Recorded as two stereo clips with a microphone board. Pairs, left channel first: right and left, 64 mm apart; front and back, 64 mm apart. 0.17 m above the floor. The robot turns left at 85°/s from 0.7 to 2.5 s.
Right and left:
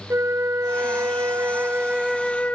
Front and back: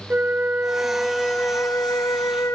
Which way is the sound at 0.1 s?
125° left.